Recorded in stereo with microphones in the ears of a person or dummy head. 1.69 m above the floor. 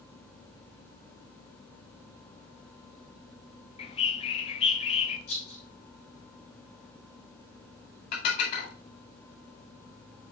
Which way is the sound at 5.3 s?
80° left.